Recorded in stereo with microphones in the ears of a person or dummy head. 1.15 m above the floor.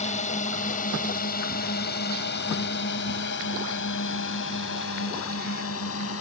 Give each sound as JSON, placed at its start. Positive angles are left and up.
{"t": 0.0, "sound": "a drone", "side_deg": 45}